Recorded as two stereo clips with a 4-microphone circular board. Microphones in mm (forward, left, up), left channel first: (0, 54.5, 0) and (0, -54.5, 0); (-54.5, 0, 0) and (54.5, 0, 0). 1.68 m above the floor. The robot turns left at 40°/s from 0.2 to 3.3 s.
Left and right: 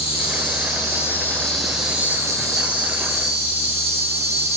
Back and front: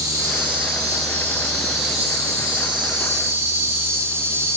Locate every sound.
0.0 s an insect: 60° left, 3 m; by 4.6 s 65° right, 3 m